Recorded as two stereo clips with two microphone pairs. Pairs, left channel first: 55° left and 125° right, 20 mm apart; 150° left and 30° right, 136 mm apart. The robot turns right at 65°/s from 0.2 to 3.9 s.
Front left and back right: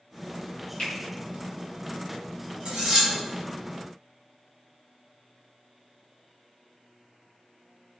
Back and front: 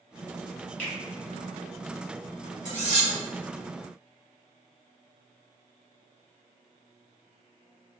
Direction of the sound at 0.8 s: 70° left.